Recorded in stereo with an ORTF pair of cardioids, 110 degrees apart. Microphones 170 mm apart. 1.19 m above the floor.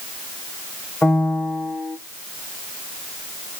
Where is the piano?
5° left, 0.6 m.